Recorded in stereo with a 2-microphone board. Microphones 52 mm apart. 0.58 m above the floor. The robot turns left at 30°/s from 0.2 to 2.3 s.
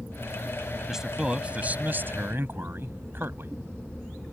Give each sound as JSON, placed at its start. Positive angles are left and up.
{"t": 0.9, "sound": "a man speaking", "azimuth_deg": -5}